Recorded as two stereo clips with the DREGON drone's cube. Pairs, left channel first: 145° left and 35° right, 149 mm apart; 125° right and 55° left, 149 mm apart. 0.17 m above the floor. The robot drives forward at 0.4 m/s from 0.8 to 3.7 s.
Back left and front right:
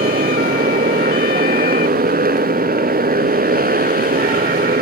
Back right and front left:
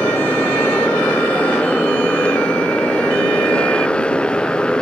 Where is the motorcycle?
45° right; by 4.8 s 40° right.